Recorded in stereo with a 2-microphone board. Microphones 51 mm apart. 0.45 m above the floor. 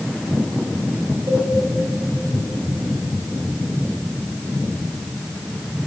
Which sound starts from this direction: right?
A cowbell, at 1.3 s.